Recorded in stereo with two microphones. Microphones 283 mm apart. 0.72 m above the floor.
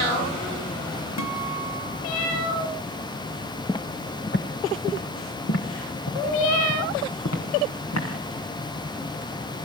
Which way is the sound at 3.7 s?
10° left (ahead or behind).